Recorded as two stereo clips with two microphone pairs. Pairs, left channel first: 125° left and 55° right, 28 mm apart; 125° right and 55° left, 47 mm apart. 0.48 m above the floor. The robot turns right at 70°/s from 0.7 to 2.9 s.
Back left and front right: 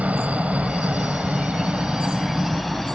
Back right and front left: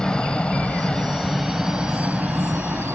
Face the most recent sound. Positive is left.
turn(degrees=45)